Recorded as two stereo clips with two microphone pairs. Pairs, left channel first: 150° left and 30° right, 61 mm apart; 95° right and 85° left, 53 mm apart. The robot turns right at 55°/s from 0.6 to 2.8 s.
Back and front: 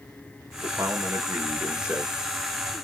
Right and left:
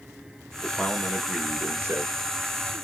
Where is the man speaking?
25° right, 1.6 m; by 2.2 s 60° left, 1.6 m.